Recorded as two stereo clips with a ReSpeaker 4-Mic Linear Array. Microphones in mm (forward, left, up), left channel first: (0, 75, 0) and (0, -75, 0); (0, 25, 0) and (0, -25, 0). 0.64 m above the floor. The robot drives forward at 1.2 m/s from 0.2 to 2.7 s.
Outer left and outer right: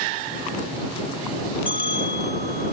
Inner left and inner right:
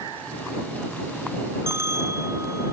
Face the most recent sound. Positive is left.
turn(degrees=-80)